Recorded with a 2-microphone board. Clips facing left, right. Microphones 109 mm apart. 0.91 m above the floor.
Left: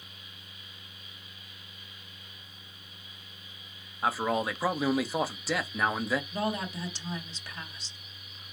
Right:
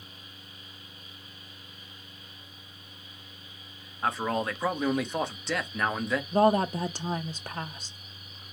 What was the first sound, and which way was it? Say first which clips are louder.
A man speaking: even; 5° left (ahead or behind).